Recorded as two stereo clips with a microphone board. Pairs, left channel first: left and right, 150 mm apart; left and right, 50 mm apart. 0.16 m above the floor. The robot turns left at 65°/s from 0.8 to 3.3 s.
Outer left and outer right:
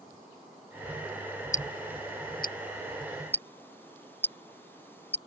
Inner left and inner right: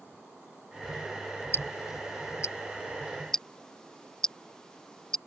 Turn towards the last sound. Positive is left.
turn(degrees=15)  # may be behind; listen again after turning